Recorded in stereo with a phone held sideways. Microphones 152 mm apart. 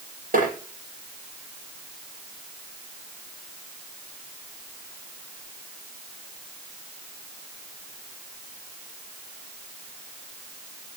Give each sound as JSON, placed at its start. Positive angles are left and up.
{"t": 0.3, "sound": "tapping", "side_deg": -70, "distance_m": 8.5}